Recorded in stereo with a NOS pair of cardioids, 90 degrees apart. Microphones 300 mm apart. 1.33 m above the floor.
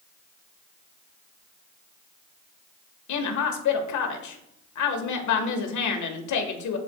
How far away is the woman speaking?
About 1.5 m.